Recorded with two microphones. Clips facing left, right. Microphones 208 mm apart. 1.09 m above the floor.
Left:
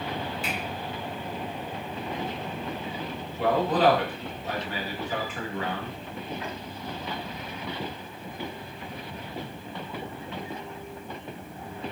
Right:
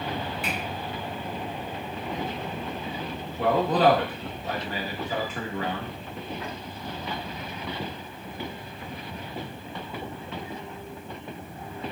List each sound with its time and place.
0.4 s a finger snap: 60° right (ahead or behind), 1.6 m
3.4 s a man speaking: 40° right (ahead or behind), 1.6 m